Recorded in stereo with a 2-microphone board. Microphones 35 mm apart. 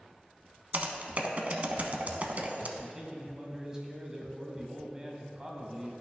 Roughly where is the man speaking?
Right.